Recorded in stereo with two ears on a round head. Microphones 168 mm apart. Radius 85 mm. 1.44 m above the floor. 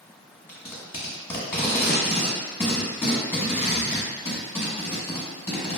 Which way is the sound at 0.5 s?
10° left (ahead or behind).